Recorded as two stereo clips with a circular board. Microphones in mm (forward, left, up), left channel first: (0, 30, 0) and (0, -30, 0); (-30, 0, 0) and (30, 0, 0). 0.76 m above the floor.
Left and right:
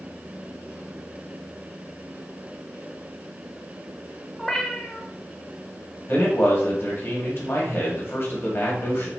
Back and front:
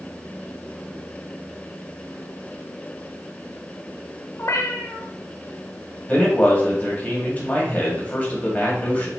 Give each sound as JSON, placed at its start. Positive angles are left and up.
{"t": 4.4, "sound": "a cat meowing", "azimuth_deg": 175, "distance_m": 0.6}
{"t": 6.1, "sound": "a man speaking", "azimuth_deg": 125, "distance_m": 1.6}